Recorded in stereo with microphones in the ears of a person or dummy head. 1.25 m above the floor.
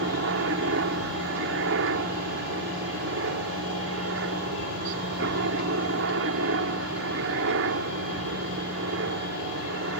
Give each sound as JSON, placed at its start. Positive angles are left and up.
{"t": 0.0, "sound": "a helicopter", "side_deg": -70}